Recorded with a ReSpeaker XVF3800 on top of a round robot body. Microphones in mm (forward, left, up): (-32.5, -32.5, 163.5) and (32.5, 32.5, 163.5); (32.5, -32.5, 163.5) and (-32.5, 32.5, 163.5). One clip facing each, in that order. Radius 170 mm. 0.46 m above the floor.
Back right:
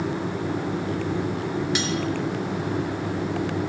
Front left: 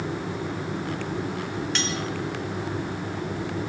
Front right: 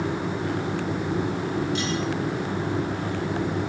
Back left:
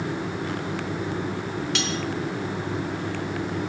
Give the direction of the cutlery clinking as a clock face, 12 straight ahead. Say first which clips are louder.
Back right 3 dB, front right 2 dB; 7 o'clock.